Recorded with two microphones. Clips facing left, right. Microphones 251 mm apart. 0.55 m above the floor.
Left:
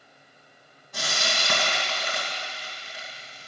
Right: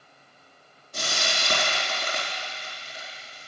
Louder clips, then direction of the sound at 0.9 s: Even; 80° left.